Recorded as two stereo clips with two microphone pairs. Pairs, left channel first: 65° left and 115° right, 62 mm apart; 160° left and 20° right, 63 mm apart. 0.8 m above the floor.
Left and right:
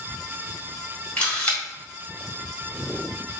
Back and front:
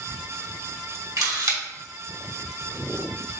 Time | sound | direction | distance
1.2 | a camera shutter | 10° right | 1.5 m